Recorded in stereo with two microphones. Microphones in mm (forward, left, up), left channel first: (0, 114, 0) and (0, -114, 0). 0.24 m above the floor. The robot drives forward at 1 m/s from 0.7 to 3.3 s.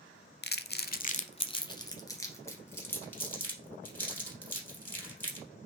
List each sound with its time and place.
0.4 s crumpling: 45° left (ahead or behind), 0.5 m; by 5.5 s 10° left (ahead or behind), 2.5 m